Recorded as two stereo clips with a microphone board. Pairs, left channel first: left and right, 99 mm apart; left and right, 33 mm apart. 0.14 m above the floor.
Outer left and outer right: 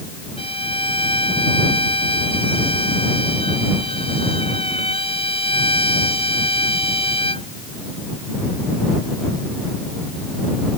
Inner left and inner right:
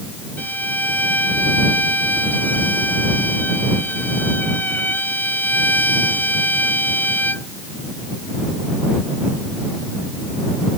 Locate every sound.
0.4 s a violin: 60° left (ahead or behind)